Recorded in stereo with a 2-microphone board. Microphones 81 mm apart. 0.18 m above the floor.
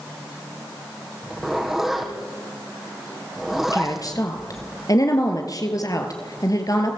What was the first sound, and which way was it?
A zipper, centre (ahead or behind).